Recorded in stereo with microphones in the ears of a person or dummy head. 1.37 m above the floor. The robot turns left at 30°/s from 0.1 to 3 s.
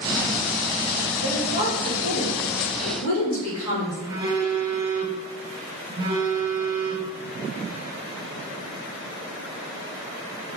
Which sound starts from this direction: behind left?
A woman speaking, at 1.2 s.